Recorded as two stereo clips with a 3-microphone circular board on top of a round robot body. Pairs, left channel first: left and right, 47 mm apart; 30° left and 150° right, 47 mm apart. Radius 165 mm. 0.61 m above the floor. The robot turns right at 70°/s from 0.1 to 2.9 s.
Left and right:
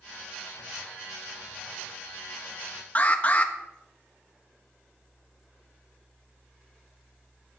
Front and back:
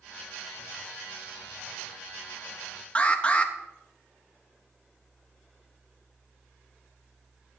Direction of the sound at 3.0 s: 70° left.